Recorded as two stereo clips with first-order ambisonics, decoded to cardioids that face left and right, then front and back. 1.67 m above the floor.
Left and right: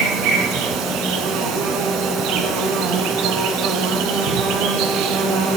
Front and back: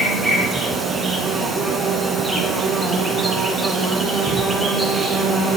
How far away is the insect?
About 1.7 m.